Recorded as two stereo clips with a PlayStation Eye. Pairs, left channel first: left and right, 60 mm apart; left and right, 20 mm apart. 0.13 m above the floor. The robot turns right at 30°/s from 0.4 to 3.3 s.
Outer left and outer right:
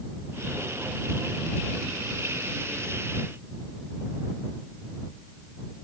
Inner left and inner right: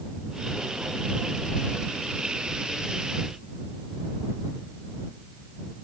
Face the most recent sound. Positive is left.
No sound to turn to.